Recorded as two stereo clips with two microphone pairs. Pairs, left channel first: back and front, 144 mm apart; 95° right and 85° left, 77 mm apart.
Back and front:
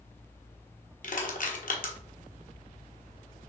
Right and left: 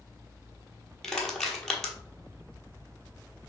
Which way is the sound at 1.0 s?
175° right.